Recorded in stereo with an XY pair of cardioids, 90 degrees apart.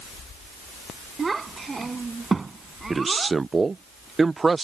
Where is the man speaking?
30° right.